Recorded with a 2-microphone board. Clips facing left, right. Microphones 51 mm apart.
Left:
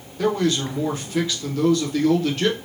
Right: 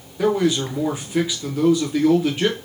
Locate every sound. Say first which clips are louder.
0.2 s a man speaking: right 2 dB; 10° right (ahead or behind), 0.8 m